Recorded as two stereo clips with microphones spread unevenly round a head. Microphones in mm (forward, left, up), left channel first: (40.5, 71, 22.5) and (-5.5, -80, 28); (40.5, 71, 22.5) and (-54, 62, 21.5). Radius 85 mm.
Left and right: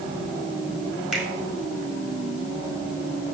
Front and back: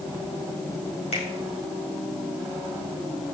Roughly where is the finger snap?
Ahead right.